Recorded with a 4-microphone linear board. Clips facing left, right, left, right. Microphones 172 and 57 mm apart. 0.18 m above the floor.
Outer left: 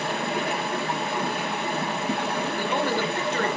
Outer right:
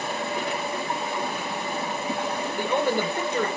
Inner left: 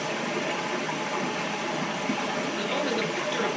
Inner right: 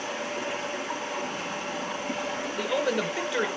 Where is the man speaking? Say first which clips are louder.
Outer right 3 dB, inner right 4 dB; 15° right (ahead or behind), 2.5 m.